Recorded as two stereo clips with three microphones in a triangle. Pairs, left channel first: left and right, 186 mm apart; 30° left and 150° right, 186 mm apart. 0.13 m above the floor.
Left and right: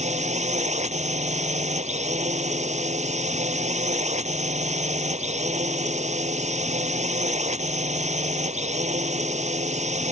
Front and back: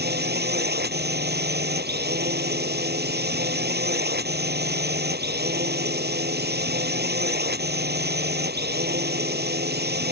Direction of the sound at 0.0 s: 135° right.